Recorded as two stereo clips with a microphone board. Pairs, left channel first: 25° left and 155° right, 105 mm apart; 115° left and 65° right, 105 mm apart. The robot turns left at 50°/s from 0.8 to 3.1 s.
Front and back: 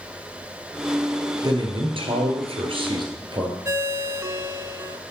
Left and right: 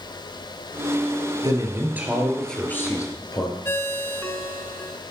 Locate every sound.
1.4 s a man speaking: 110° right, 2 m; by 3.5 s 165° left, 2 m
3.6 s a ringtone: 165° left, 1.0 m